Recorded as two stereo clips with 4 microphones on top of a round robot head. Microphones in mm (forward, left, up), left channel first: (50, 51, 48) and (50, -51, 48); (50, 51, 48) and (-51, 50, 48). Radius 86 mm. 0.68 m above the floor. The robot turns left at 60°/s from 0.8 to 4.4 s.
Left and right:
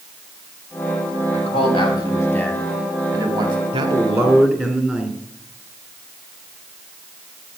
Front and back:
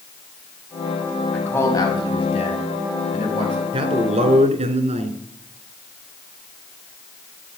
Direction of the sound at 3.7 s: 130° right.